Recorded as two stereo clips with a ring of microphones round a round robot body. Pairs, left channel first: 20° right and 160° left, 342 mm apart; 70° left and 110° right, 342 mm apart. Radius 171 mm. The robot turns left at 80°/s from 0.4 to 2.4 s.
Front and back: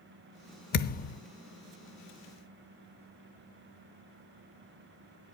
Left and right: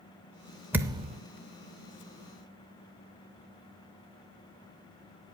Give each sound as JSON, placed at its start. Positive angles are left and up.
{"t": 0.7, "sound": "a thud", "azimuth_deg": -35, "distance_m": 0.6}